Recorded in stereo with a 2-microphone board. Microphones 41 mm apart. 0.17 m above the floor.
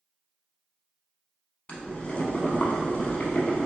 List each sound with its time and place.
1.7 s boiling: 30° left (ahead or behind), 0.6 m